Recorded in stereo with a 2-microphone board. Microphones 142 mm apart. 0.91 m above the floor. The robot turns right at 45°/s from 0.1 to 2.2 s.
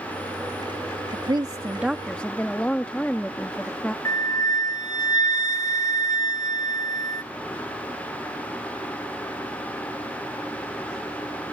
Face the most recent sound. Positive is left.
turn(degrees=25)  # may be behind; listen again after turning